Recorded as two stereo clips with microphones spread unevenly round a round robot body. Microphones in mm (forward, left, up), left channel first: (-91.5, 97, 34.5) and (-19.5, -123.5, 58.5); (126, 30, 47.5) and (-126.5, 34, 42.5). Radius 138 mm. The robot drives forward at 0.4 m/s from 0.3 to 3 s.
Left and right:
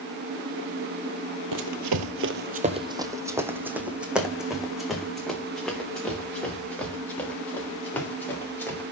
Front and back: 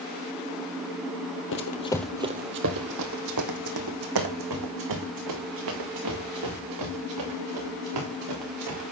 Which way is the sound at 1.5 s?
50° right.